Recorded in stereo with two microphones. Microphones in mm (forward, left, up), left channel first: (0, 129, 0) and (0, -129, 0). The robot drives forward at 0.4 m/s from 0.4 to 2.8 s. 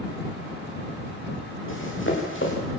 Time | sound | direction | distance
1.7 | running footsteps | 50° left (ahead or behind) | 7.5 m